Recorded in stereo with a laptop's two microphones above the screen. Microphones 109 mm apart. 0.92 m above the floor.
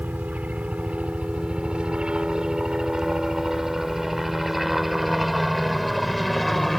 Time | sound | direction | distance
0.0 | a helicopter | 15° right (ahead or behind) | ?